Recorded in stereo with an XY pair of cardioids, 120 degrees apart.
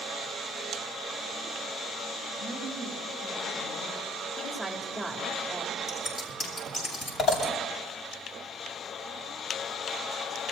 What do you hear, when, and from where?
2.4 s a woman speaking: 50° left, 9.5 m
4.4 s a woman speaking: 5° left, 3.5 m
5.9 s scissors: 40° left, 8 m